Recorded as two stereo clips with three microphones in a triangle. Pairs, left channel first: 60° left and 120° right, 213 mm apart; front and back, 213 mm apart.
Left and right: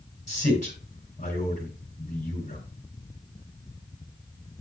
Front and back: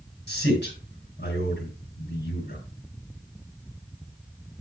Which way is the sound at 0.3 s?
15° left.